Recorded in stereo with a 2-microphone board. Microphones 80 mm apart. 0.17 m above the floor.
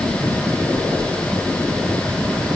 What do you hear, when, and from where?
Only background noise.